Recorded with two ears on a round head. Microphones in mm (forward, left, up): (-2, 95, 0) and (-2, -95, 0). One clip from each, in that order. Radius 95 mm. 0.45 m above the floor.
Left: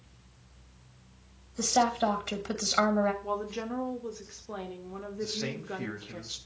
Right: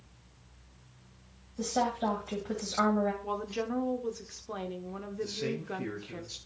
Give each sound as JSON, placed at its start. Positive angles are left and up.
{"t": 1.6, "sound": "a woman speaking", "side_deg": 65, "distance_m": 1.9}
{"t": 3.2, "sound": "a woman speaking", "side_deg": -10, "distance_m": 0.9}
{"t": 5.2, "sound": "a man speaking", "side_deg": 35, "distance_m": 2.5}